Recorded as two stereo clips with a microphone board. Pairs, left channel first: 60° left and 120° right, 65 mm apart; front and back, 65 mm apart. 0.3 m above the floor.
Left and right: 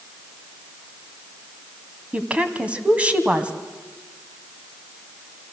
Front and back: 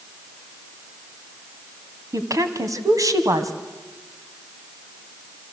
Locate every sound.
2.1 s a woman speaking: 170° left, 2.0 m